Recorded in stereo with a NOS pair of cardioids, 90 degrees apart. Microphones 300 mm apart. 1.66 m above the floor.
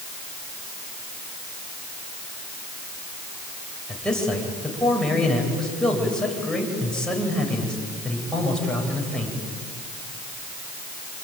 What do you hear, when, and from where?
3.9 s a man speaking: straight ahead, 8.5 m